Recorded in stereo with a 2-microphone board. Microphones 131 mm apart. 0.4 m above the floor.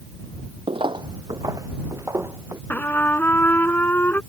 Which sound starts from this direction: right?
Footsteps, at 0.7 s.